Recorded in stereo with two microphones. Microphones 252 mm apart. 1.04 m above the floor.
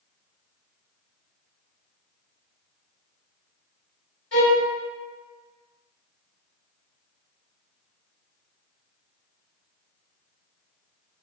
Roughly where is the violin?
Left.